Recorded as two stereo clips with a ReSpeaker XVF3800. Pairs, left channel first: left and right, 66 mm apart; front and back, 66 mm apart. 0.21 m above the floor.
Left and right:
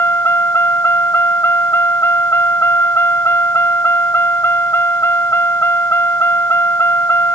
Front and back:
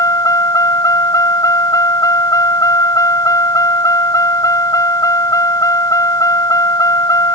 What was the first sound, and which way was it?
A vehicle, 35° left.